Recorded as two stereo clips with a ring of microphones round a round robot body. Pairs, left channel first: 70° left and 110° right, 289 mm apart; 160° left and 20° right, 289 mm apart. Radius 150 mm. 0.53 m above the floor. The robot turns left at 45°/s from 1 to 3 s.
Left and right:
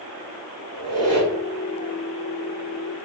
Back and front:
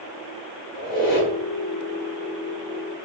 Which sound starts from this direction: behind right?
A squeak, at 0.7 s.